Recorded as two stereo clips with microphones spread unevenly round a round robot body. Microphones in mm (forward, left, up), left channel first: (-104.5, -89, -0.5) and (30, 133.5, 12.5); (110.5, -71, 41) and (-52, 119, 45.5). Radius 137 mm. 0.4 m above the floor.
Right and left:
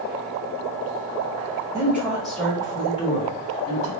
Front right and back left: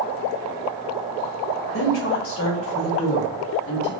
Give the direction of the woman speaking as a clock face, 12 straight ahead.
1 o'clock.